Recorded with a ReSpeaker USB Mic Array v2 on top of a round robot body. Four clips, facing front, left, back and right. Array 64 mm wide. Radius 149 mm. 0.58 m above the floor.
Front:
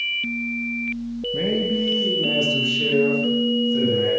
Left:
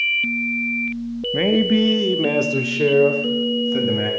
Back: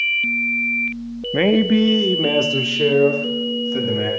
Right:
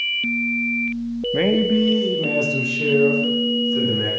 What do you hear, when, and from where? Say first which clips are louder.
1.3 s a man speaking: left 1 dB, back 8 dB; 175° right, 0.9 m; by 4.1 s 120° left, 4 m